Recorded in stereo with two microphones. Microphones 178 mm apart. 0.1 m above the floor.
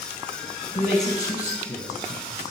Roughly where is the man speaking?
Left.